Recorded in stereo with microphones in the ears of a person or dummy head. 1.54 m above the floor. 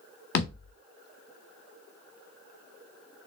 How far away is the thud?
About 1.6 m.